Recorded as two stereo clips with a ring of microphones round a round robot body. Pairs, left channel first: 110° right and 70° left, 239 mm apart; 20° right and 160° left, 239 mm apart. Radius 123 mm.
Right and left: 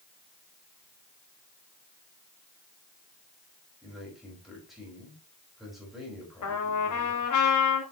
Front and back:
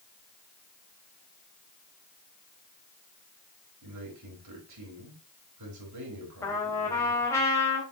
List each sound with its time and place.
3.8 s a man speaking: 155° left, 4.5 m
6.4 s a trumpet: 100° right, 3 m